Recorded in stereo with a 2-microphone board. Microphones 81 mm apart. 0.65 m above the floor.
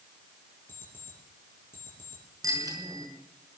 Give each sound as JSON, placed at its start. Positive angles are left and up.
{"t": 0.7, "sound": "an alarm clock", "side_deg": 30, "distance_m": 7.5}
{"t": 2.4, "sound": "a bicycle bell", "side_deg": -45, "distance_m": 5.5}